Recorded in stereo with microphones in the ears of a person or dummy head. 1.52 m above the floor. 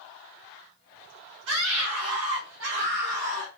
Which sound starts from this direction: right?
A scream, at 1.5 s.